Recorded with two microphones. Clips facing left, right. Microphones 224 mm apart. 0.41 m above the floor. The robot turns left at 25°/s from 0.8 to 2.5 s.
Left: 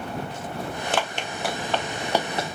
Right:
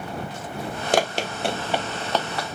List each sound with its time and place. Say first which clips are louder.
0.9 s running footsteps: right 8 dB; 45° right (ahead or behind); by 2.6 s 30° left (ahead or behind)